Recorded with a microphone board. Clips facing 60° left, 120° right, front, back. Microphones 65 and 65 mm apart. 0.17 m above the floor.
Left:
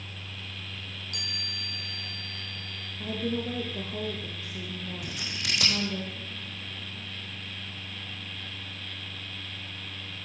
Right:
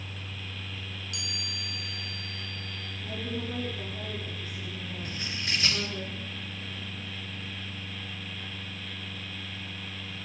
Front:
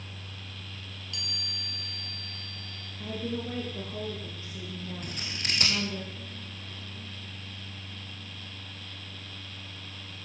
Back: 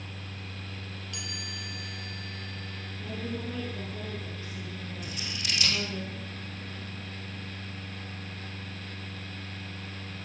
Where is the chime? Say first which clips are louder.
Left 1 dB, back 1 dB; 115° left, 6.5 m.